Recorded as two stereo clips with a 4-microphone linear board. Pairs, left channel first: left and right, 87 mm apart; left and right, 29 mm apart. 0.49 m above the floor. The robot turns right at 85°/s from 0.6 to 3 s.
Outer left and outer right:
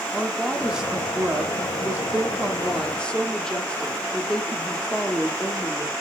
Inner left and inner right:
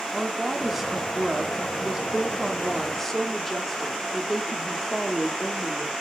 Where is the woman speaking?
5° right (ahead or behind), 0.7 m; by 5.9 s 10° left (ahead or behind), 0.7 m.